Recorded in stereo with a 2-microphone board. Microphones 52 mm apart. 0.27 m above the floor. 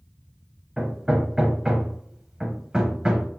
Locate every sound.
0.8 s hammering: 15° right (ahead or behind), 0.8 m